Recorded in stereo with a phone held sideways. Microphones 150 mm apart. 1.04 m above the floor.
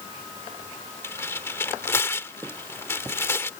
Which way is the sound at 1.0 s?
15° left (ahead or behind).